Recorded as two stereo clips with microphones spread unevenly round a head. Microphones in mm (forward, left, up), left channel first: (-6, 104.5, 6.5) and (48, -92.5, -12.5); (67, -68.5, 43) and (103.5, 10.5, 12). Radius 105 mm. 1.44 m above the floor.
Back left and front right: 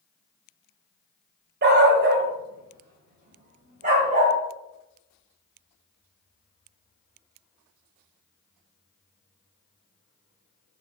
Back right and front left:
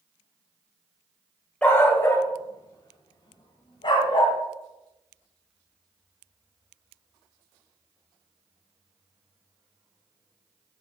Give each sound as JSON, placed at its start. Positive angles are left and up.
{"t": 1.6, "sound": "a dog barking", "azimuth_deg": -75, "distance_m": 1.5}